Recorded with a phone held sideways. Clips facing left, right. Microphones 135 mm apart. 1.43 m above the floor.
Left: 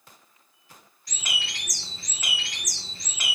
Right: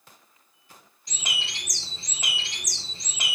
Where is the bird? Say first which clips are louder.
Even; 20° right (ahead or behind), 0.6 m.